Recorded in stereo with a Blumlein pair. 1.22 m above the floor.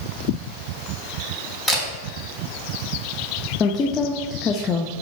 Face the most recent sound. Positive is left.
turn(degrees=25)